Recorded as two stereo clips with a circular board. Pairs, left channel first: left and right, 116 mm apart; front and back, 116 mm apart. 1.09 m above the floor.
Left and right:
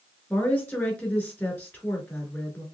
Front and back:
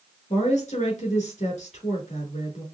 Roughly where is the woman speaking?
Ahead.